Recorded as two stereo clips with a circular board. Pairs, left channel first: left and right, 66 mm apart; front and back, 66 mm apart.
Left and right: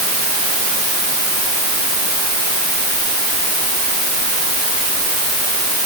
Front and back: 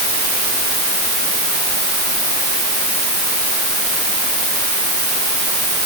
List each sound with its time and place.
Only background noise.